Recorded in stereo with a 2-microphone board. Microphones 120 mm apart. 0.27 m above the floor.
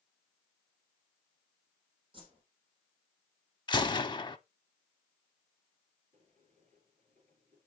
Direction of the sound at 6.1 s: 75° right (ahead or behind).